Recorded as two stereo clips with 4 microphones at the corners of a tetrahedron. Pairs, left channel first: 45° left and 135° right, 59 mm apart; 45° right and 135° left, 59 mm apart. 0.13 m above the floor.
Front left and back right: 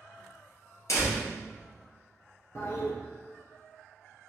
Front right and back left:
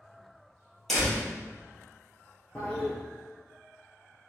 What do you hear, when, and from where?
0.9 s a door slam: 40° left, 1.8 m
2.5 s a toilet flushing: 20° left, 1.0 m